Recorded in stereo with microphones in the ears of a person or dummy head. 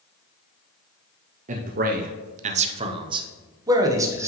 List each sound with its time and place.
1.5 s a man speaking: 40° right (ahead or behind), 0.6 m; by 4.3 s 15° right (ahead or behind), 1.4 m